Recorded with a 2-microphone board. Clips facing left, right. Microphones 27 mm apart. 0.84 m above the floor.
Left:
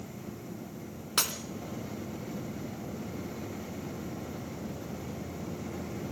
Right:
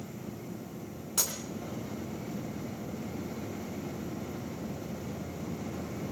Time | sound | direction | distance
1.2 | breaking glass | 60° left (ahead or behind) | 2 m